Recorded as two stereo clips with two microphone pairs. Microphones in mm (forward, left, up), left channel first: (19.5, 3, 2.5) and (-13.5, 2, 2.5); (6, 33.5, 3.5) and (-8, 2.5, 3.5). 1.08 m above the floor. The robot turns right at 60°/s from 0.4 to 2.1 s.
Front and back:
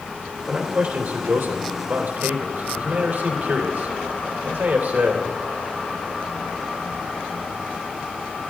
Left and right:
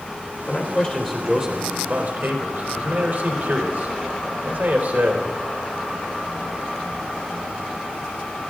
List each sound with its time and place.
0.5 s a man speaking: 125° left, 3.5 m; by 5.2 s 135° right, 3.5 m